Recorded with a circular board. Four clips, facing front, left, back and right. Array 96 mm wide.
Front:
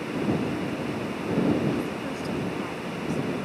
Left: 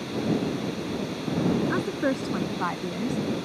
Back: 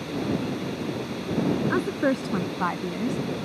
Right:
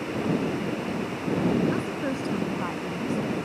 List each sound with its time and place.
1.7 s a woman speaking: 155° left